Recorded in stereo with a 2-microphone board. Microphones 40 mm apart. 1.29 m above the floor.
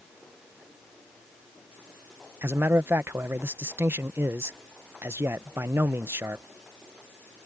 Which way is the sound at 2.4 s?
75° right (ahead or behind).